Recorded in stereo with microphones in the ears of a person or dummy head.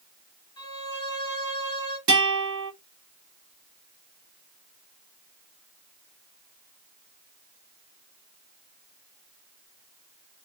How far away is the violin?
About 1.3 m.